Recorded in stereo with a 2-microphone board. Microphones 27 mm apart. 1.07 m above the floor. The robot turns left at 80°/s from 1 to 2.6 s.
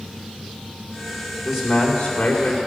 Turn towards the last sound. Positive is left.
turn(degrees=95)